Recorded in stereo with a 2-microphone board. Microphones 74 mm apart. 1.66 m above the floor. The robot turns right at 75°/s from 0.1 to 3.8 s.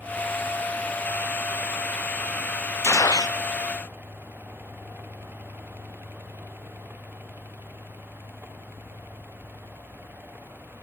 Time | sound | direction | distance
2.8 | a gunshot | 35° left | 0.7 m